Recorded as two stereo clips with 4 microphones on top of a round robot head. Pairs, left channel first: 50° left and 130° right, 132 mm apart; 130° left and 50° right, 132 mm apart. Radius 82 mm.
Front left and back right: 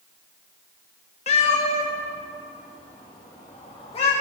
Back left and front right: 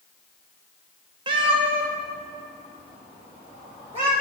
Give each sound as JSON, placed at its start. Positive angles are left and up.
{"t": 1.3, "sound": "a cat meowing", "azimuth_deg": 5, "distance_m": 0.7}